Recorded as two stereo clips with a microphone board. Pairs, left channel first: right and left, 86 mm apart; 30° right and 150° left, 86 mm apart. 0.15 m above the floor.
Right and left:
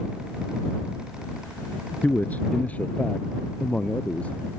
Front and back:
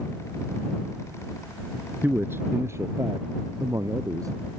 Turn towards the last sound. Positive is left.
turn(degrees=-165)